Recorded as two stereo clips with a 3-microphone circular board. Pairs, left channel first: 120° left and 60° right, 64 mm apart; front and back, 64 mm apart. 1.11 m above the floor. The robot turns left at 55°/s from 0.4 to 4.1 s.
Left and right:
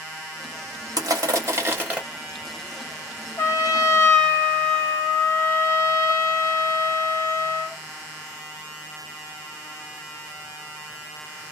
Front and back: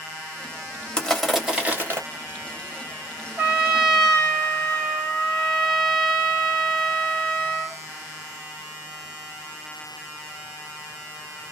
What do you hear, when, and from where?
1.0 s crushing: 75° right, 1.1 m; by 2.0 s 135° right, 1.1 m
3.4 s a trumpet: 120° left, 1.0 m; by 7.8 s 80° left, 1.0 m